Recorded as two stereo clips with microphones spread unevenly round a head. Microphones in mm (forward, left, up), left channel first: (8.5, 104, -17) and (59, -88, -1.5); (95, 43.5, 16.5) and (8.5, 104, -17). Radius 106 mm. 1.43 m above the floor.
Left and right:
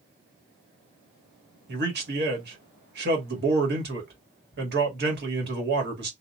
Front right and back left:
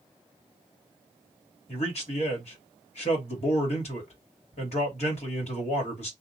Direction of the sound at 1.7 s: 40° right.